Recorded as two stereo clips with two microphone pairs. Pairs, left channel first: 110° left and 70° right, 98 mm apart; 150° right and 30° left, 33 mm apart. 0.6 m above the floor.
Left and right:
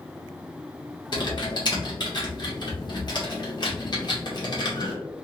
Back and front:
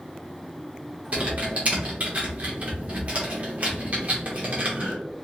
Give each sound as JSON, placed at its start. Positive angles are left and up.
{"t": 1.1, "sound": "typing on a keyboard", "azimuth_deg": 80, "distance_m": 1.3}